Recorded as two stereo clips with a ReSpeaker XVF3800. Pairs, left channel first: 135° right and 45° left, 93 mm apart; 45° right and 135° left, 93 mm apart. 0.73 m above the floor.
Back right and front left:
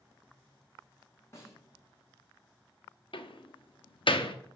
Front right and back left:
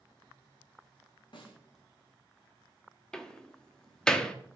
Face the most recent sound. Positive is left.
turn(degrees=-125)